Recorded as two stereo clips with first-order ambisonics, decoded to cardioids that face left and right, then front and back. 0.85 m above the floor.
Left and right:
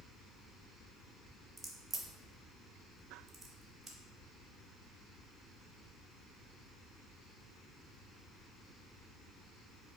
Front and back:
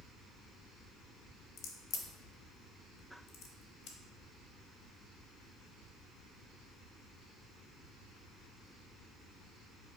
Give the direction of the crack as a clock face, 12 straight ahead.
1 o'clock.